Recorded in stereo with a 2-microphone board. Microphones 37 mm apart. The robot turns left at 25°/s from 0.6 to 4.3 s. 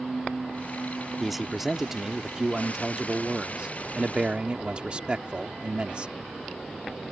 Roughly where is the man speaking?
Centre.